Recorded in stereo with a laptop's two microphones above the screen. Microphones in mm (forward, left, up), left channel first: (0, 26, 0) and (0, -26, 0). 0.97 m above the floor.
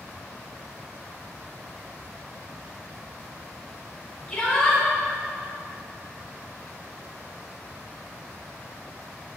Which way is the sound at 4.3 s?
10° left (ahead or behind).